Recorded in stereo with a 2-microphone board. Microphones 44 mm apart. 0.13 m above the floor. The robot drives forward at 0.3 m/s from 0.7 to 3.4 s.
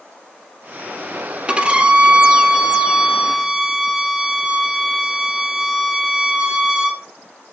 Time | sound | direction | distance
1.5 | a violin | 20° right (ahead or behind) | 0.5 m